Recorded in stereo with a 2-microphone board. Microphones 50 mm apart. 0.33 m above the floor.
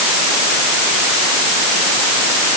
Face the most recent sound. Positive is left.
No sound to turn to.